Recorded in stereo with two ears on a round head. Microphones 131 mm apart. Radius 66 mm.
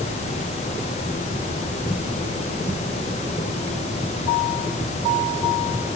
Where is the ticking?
I don't hear ticking.